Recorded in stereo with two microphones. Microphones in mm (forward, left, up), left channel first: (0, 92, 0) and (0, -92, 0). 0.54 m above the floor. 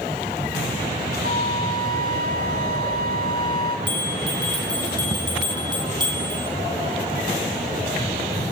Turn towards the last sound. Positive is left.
turn(degrees=-25)  # may be behind; listen again after turning